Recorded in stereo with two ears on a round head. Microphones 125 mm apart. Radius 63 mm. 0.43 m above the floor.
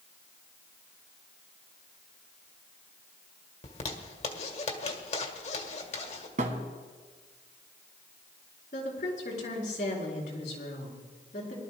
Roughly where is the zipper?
Left.